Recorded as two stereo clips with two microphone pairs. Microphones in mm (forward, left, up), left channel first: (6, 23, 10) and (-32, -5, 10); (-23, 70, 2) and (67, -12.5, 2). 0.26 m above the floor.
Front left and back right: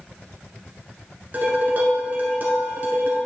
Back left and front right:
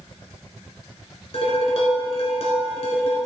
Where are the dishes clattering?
170° left, 1.9 m.